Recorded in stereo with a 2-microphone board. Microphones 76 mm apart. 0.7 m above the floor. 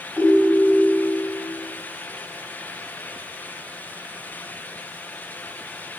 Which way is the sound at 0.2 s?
15° right (ahead or behind).